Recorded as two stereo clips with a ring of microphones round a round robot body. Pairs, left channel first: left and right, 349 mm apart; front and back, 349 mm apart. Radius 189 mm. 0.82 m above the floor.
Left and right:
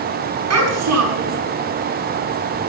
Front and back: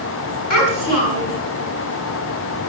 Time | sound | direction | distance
0.5 | a child speaking | 45° right | 5.5 m